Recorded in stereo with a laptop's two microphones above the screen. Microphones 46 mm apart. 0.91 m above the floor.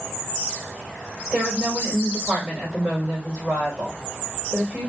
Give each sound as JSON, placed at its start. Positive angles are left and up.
{"t": 1.3, "sound": "a woman speaking", "side_deg": -45, "distance_m": 3.5}